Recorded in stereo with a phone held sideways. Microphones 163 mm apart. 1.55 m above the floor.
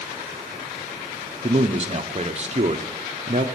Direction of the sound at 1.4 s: 40° right (ahead or behind).